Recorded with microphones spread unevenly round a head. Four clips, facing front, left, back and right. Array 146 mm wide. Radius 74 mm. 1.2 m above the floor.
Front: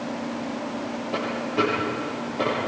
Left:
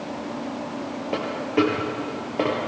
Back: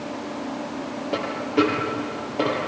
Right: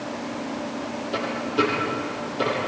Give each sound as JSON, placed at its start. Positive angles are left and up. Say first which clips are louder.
{"t": 1.1, "sound": "a dropped coin", "louder": "left 2 dB, back 4 dB", "azimuth_deg": 115, "distance_m": 6.5}